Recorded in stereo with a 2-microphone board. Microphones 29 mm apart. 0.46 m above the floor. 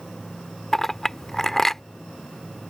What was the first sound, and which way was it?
A clink, 15° left (ahead or behind).